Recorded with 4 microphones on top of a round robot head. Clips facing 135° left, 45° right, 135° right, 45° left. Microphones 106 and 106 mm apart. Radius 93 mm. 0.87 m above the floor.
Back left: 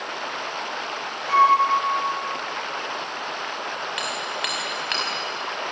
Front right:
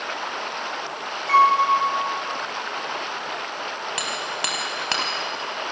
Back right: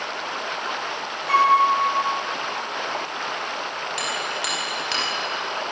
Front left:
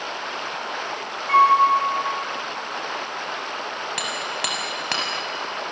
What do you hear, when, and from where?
1.3 s a flute: 75° right, 4.5 m
4.0 s hammering: 10° left, 5.5 m